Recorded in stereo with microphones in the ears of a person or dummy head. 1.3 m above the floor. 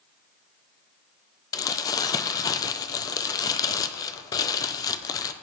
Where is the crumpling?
20° left (ahead or behind), 0.8 m.